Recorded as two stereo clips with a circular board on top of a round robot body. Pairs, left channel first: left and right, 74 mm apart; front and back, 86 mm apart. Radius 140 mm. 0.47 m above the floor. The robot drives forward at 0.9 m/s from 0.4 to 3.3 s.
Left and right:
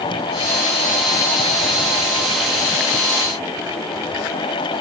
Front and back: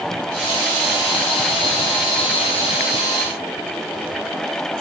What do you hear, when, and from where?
Only background noise.